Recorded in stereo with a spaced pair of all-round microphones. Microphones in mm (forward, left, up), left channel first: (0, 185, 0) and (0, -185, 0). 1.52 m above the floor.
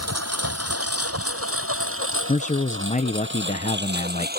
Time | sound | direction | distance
0.0 | a lawn mower | 40° right (ahead or behind) | ?
2.3 | a man speaking | 20° left (ahead or behind) | ?